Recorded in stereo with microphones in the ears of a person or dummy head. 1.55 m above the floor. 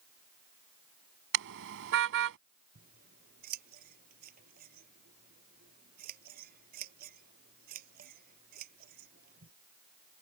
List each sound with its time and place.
1.3 s a car horn: 60° right (ahead or behind)
2.8 s scissors: 45° right (ahead or behind)